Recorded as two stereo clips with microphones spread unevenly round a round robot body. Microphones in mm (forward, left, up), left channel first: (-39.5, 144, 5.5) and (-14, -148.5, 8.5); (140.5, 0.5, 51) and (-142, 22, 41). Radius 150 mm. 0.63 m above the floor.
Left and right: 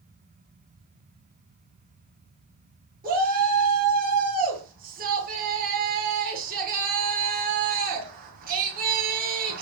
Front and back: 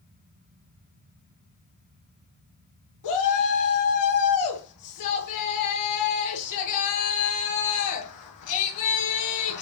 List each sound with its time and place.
3.0 s a shout: 25° right, 9.5 m